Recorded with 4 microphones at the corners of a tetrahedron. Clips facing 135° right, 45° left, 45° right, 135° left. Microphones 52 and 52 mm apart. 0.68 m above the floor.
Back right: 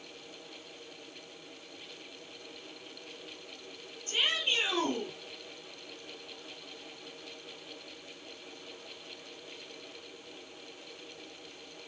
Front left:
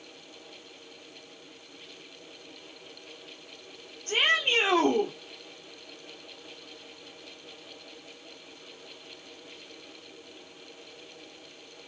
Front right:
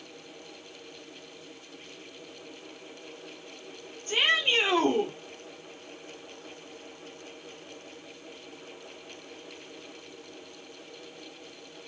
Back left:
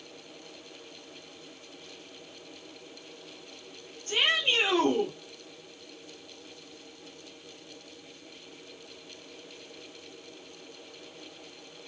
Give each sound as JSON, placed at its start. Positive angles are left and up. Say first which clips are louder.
{"t": 4.1, "sound": "a shout", "louder": "front left 6 dB, front right 1 dB", "azimuth_deg": 25, "distance_m": 2.0}